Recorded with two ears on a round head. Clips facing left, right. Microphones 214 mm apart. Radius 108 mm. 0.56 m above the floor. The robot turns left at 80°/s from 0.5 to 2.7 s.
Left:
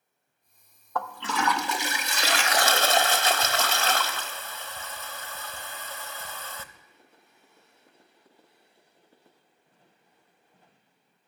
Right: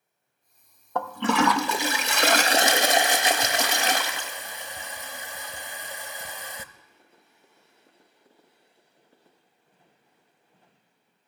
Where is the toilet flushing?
25° right, 0.5 m; by 6.7 s 165° right, 0.5 m.